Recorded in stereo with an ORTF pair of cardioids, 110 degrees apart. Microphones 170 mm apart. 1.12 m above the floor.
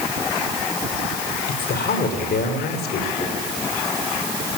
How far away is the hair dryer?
No hair dryer in this recording.